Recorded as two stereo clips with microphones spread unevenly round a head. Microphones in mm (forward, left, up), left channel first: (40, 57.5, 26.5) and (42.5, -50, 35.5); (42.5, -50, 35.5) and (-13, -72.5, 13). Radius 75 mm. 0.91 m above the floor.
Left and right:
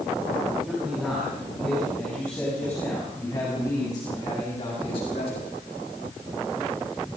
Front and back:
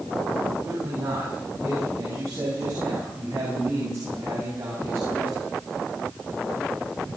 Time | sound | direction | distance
0.7 | a man speaking | 175° right | 8 m